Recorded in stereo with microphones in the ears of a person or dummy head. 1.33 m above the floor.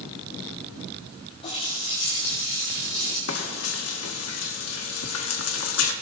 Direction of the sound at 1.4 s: 30° left (ahead or behind).